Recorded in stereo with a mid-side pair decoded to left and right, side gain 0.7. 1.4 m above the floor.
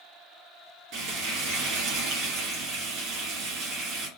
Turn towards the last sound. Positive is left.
turn(degrees=-60)